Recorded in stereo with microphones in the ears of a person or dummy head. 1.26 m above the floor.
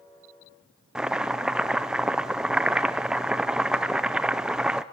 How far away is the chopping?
About 0.7 m.